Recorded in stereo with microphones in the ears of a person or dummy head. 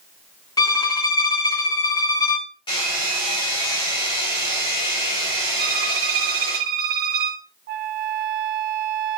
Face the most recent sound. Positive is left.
turn(degrees=-45)  # may be behind; listen again after turning